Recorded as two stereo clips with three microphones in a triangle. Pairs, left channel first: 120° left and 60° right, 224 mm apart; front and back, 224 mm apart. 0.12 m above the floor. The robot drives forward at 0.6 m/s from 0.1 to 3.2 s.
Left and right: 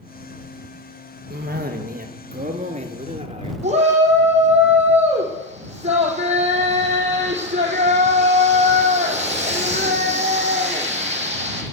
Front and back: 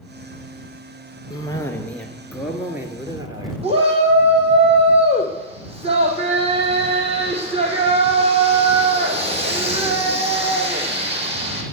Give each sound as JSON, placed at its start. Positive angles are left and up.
{"t": 1.3, "sound": "a cough", "azimuth_deg": -65, "distance_m": 1.8}
{"t": 3.6, "sound": "a shout", "azimuth_deg": -120, "distance_m": 5.0}